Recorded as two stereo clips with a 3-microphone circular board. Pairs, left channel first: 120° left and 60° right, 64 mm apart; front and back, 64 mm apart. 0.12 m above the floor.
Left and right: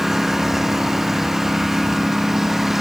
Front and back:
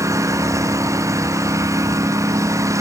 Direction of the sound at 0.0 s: 145° right.